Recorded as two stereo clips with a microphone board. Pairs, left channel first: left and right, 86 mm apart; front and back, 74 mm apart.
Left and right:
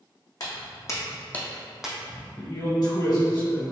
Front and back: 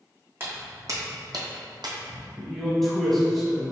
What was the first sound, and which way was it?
Footsteps, 125° left.